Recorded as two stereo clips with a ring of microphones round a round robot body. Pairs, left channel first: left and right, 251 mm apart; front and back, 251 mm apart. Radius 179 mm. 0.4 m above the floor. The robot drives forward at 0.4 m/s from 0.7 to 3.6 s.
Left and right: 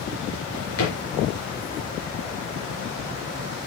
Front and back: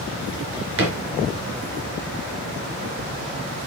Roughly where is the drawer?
Behind left.